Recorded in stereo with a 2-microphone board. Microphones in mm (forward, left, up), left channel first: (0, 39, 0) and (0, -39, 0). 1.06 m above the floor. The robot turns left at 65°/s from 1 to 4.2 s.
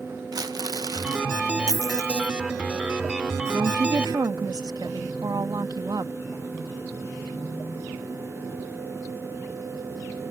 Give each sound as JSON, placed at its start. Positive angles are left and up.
{"t": 0.3, "sound": "crumpling", "side_deg": -60}
{"t": 1.7, "sound": "a dropped coin", "azimuth_deg": 65}
{"t": 3.5, "sound": "a woman speaking", "azimuth_deg": -60}